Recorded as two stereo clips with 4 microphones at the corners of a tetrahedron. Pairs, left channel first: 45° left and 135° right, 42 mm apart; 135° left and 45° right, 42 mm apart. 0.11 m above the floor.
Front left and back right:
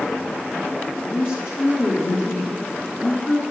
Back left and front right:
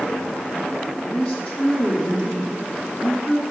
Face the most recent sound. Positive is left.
turn(degrees=65)